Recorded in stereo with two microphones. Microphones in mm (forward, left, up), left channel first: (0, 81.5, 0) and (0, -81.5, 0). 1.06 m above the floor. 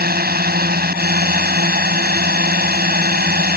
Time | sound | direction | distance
0.0 | a drone | 75° right (ahead or behind) | ?